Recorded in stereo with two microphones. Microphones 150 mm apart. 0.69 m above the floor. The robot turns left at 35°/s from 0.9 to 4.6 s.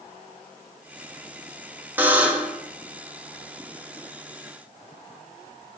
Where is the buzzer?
10° right (ahead or behind), 0.7 m; by 2.6 s 5° right (ahead or behind), 0.7 m.